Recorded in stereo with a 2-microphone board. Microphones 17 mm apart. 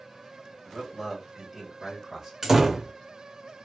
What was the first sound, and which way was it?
A man speaking, 45° right (ahead or behind).